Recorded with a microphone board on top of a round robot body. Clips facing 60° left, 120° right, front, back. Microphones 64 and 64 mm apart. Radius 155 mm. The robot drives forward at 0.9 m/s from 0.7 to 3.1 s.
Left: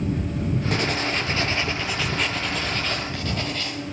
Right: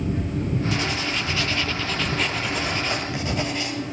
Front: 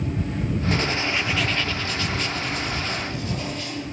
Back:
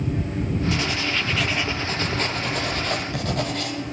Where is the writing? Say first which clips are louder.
Left 1 dB, front 1 dB; 35° left, 1.0 m; by 3.9 s 165° left, 1.7 m.